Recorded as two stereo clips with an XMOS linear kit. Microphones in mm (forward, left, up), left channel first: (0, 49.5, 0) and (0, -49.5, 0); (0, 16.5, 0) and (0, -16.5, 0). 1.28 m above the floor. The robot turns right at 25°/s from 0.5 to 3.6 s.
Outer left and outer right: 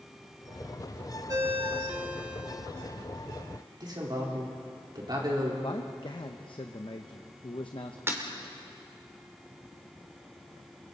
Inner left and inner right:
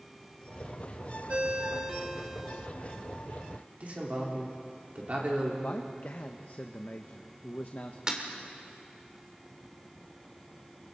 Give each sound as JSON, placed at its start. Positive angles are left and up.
{"t": 1.3, "sound": "a ringtone", "azimuth_deg": -40, "distance_m": 1.5}
{"t": 3.8, "sound": "a man speaking", "side_deg": -45, "distance_m": 4.0}
{"t": 5.6, "sound": "a man speaking", "side_deg": 55, "distance_m": 0.8}
{"t": 8.1, "sound": "breaking glass", "side_deg": -25, "distance_m": 2.0}